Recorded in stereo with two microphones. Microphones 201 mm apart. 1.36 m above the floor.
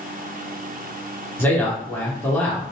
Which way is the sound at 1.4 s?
10° left (ahead or behind).